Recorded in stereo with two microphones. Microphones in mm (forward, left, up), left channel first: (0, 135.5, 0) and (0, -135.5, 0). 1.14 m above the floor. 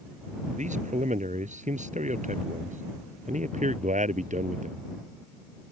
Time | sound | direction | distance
0.6 | a man speaking | 25° right (ahead or behind) | ?